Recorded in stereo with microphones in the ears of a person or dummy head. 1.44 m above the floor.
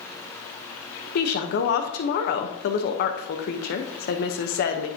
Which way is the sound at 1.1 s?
55° left (ahead or behind).